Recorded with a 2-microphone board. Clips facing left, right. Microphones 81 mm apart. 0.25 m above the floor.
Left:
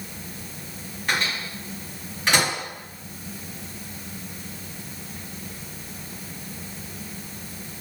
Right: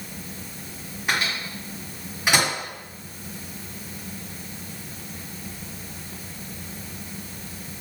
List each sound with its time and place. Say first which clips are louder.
1.1 s a microwave: even; 10° right (ahead or behind), 1.9 m